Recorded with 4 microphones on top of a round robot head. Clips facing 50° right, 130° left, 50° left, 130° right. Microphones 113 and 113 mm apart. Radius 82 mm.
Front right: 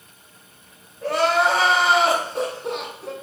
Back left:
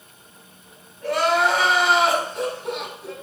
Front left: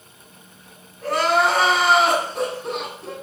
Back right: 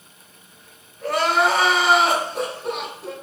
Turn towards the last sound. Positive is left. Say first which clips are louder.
# front right 1 dB, front left 1 dB
turn(degrees=-45)